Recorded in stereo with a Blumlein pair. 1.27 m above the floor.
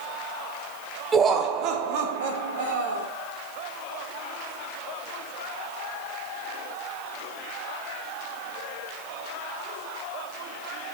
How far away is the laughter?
About 0.7 m.